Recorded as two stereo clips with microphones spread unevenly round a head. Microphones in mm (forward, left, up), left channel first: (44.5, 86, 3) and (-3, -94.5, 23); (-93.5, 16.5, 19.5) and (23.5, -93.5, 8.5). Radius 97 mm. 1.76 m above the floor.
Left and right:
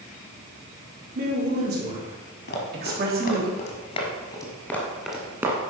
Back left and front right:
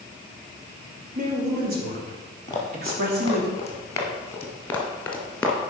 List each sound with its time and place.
1.1 s a woman speaking: 70° right, 4.5 m; by 3.5 s 65° right, 3 m
2.5 s running footsteps: 75° left, 2.5 m; by 5.6 s 155° right, 1.9 m